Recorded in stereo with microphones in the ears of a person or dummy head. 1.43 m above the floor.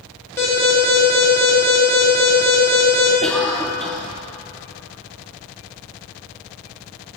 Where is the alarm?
10° left (ahead or behind), 2.5 m.